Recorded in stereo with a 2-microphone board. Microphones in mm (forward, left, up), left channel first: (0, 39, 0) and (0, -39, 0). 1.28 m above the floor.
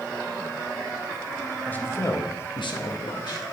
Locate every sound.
1.6 s a man speaking: 20° left (ahead or behind), 1.5 m; by 3.4 s 65° left (ahead or behind), 1.8 m